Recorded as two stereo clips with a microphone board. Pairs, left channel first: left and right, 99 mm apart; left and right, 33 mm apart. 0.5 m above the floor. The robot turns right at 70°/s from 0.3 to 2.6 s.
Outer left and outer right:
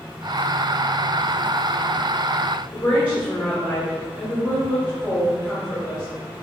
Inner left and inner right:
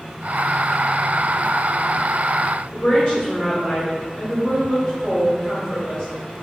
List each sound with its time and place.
2.7 s a woman speaking: 20° left (ahead or behind), 1.8 m